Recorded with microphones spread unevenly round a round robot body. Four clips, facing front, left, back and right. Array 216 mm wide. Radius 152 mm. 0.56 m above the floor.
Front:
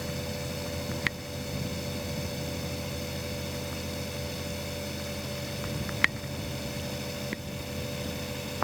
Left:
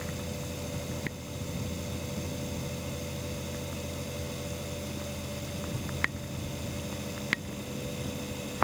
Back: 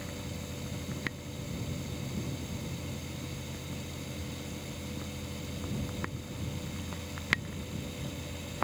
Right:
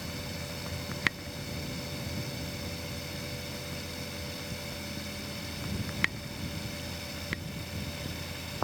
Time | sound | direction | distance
0.0 | running water | 10° right | ?